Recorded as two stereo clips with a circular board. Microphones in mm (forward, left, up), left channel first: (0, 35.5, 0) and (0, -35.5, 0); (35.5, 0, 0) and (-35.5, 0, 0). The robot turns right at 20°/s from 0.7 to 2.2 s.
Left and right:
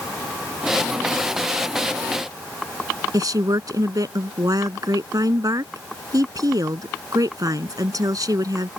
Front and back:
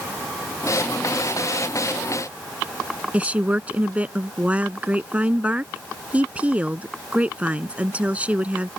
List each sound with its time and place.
3.1 s a woman speaking: 110° right